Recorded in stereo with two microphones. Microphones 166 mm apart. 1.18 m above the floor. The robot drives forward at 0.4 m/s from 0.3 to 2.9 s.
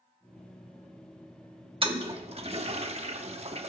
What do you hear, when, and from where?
1.8 s a toilet flushing: 35° right (ahead or behind), 0.8 m; by 3.7 s 40° right (ahead or behind), 0.7 m